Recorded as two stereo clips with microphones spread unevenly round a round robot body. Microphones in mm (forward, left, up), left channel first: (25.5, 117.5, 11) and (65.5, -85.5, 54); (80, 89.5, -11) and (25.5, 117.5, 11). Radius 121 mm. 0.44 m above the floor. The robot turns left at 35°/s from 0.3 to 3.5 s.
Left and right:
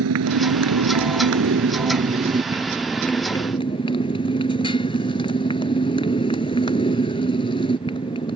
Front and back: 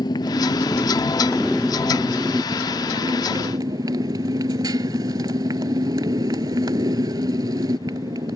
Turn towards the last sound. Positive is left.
turn(degrees=175)